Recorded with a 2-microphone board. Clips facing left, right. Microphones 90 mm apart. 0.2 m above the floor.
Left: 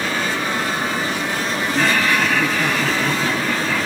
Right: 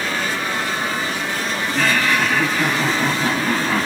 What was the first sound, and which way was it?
Laughter, 10° left (ahead or behind).